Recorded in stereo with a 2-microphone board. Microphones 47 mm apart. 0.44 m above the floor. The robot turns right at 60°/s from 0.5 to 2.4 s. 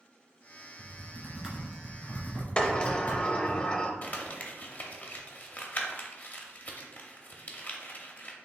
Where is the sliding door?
20° left (ahead or behind), 0.5 m.